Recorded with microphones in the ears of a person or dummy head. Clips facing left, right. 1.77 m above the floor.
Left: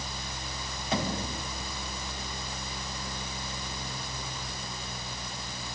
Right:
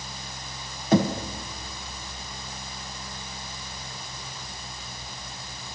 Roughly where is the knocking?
Right.